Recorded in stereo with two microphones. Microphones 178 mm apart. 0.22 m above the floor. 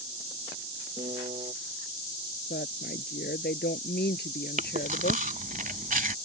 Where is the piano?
35° right (ahead or behind).